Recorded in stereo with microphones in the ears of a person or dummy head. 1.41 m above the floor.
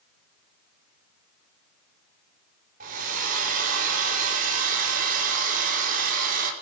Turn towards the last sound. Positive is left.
turn(degrees=-50)  # may be behind; listen again after turning